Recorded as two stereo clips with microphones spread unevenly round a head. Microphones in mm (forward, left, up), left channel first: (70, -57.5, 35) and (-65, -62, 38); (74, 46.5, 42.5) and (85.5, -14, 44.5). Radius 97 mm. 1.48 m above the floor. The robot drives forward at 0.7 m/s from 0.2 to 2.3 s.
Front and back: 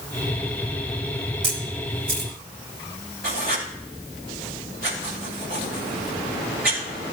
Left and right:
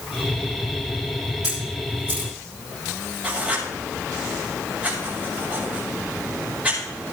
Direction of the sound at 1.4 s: 165° right.